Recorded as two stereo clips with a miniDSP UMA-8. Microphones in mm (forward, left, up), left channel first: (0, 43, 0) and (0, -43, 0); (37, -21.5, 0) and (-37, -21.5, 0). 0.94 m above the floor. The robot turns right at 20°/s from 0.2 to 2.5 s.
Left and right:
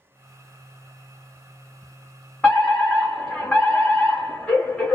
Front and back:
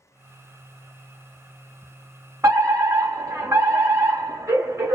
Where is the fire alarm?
160° left, 1.6 m.